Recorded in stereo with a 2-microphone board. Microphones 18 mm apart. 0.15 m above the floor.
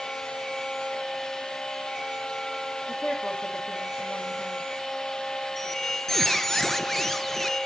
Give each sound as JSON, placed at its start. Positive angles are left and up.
{"t": 2.9, "sound": "a woman speaking", "side_deg": 65, "distance_m": 9.5}
{"t": 5.6, "sound": "a squeak", "side_deg": 15, "distance_m": 1.5}